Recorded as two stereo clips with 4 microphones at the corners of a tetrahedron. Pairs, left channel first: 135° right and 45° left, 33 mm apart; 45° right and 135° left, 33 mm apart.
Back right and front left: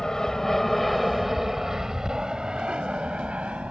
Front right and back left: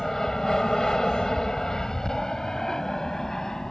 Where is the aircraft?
100° right; by 3.7 s 20° left.